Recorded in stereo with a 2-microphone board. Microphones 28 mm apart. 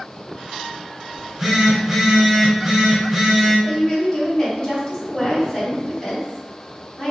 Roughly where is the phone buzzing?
Centre.